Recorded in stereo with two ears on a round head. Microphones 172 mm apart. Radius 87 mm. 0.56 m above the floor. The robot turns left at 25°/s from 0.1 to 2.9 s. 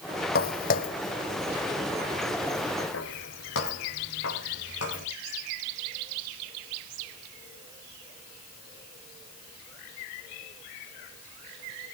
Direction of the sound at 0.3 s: 50° left (ahead or behind).